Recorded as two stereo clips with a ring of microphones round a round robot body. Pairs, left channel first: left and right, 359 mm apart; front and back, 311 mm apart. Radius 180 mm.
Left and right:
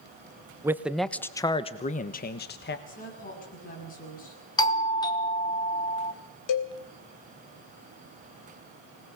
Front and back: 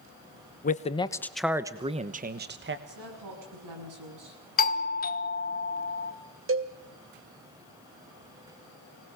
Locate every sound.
0.6 s a man speaking: 15° right, 0.9 m; by 2.8 s 140° left, 1.2 m
2.9 s a woman speaking: 160° left, 8 m
4.6 s a doorbell: 20° left, 1.5 m
6.5 s a cowbell: 130° left, 2.5 m